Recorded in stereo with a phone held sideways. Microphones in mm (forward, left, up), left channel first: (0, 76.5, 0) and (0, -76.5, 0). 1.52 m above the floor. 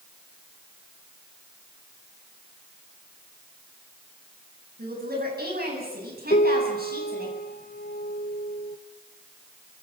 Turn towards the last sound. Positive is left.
turn(degrees=75)  # may be behind; listen again after turning